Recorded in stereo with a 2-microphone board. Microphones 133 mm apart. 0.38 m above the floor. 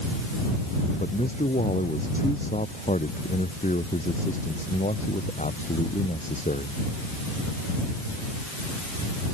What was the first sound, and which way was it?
A man speaking, 70° left (ahead or behind).